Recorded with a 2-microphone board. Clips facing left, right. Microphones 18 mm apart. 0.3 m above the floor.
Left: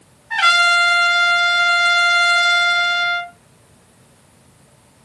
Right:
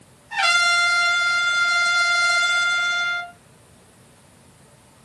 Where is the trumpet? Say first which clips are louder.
Left 5 dB; 70° left (ahead or behind), 2.5 m.